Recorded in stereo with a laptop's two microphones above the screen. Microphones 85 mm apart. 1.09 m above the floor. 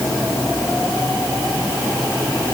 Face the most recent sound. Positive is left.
No sound to turn to.